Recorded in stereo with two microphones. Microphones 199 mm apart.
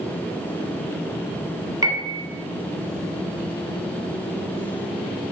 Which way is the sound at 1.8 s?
20° right (ahead or behind).